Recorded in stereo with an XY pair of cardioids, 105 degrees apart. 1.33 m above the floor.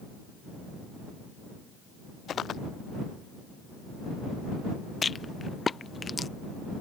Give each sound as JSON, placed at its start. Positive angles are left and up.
{"t": 2.3, "sound": "footsteps", "azimuth_deg": 55}
{"t": 5.0, "sound": "a rattle", "azimuth_deg": 35}